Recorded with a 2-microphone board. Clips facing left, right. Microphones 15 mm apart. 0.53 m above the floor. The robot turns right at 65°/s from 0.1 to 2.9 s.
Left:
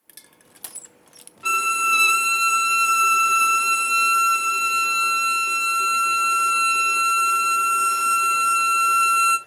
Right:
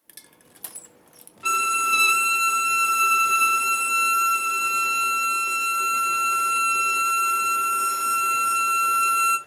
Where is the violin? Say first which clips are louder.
Left 2 dB; 5° left (ahead or behind), 0.8 m; by 9.4 s 20° left (ahead or behind), 0.8 m.